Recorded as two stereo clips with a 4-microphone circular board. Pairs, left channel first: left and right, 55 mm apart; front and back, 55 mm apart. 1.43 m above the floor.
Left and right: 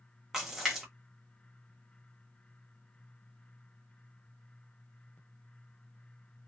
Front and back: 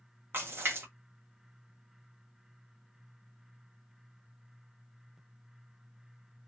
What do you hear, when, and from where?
0.3 s a splash: 170° right, 0.9 m